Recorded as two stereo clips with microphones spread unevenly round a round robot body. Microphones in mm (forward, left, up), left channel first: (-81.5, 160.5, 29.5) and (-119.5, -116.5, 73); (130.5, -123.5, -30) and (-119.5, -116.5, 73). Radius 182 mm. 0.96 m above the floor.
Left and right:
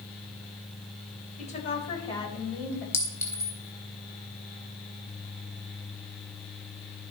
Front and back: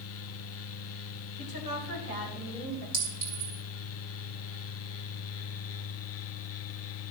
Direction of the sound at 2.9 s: 165° left.